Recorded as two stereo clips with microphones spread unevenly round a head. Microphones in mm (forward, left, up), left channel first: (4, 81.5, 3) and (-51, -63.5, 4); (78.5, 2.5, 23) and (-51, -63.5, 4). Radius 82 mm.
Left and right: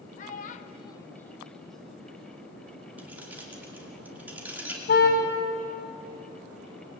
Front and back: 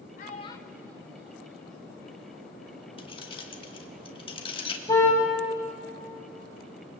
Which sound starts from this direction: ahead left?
A child speaking, at 0.2 s.